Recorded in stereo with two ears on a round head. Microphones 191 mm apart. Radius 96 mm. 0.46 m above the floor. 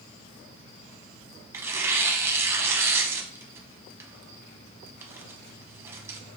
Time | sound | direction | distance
1.5 | tearing paper | 10° right (ahead or behind) | 0.6 m